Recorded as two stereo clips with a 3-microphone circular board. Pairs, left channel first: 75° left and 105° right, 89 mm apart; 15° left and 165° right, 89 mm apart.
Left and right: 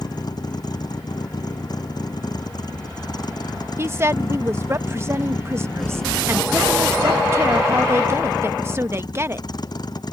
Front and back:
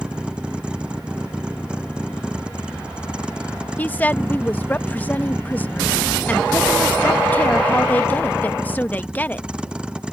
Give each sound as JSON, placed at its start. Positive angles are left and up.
{"t": 0.0, "sound": "a vehicle", "azimuth_deg": 115}
{"t": 3.8, "sound": "a woman speaking", "azimuth_deg": -50}